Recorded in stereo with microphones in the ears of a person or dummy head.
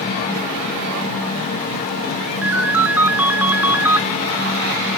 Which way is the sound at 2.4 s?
5° right (ahead or behind).